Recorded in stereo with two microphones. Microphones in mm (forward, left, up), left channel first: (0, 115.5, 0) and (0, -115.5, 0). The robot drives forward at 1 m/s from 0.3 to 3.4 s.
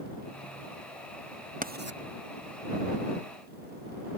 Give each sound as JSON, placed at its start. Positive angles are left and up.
{"t": 1.6, "sound": "writing", "side_deg": -35}